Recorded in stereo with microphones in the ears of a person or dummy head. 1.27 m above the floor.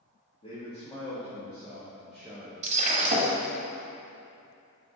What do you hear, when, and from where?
0.4 s a man speaking: 30° left (ahead or behind), 1.7 m; by 2.5 s 10° right (ahead or behind), 1.1 m
2.6 s breaking glass: 40° right (ahead or behind), 1.2 m